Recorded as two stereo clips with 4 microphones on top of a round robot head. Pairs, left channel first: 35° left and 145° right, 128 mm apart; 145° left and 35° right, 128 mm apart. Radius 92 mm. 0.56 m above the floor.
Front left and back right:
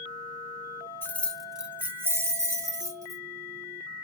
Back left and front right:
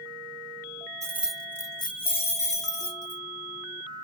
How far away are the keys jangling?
About 0.6 m.